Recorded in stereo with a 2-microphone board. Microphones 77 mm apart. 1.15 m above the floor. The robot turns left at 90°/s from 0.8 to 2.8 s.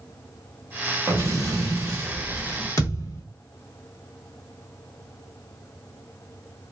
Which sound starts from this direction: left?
A thud, at 2.8 s.